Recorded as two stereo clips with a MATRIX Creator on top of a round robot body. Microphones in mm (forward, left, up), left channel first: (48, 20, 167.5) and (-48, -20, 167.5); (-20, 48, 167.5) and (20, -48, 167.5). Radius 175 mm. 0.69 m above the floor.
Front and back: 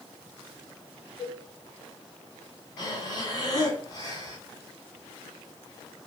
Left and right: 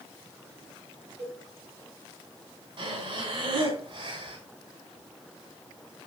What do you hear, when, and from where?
1.2 s a cowbell: 45° right, 4 m
2.8 s breathing: 30° right, 3.5 m